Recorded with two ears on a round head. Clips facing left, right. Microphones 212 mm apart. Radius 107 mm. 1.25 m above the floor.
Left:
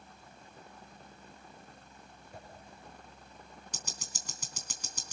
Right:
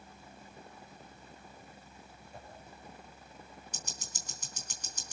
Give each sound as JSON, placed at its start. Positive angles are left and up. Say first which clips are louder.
{"t": 2.3, "sound": "a whoosh", "louder": "left 1 dB", "side_deg": 50, "distance_m": 6.5}
{"t": 3.7, "sound": "ticking", "louder": "left 1 dB", "side_deg": 65, "distance_m": 3.0}